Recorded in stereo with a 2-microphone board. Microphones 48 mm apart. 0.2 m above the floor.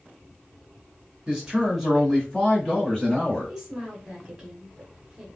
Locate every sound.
1.3 s a man speaking: 15° right (ahead or behind), 1.7 m; by 3.5 s 25° left (ahead or behind), 1.9 m
3.5 s a woman speaking: 10° right (ahead or behind), 1.1 m